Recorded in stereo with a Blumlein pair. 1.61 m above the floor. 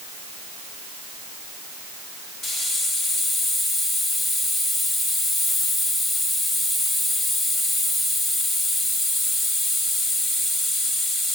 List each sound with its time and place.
2.4 s a hiss: 15° left, 1.0 m